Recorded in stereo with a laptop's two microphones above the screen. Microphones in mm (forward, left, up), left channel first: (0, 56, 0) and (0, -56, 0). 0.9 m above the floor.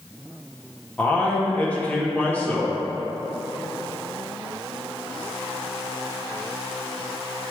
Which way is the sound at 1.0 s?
15° left (ahead or behind).